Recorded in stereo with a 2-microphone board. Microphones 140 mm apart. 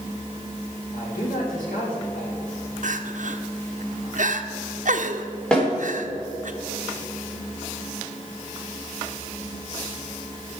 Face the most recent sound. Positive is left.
turn(degrees=5)  # may be behind; listen again after turning